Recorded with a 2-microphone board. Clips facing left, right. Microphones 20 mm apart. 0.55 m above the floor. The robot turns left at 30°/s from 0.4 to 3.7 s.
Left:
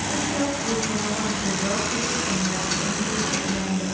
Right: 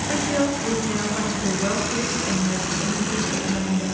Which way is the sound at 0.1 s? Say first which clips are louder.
Right 4 dB; 95° right.